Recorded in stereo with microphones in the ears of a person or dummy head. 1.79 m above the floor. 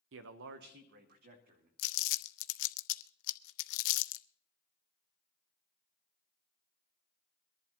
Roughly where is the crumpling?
Left.